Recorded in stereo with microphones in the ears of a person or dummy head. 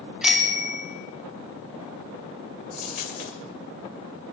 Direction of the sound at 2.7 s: 40° left (ahead or behind).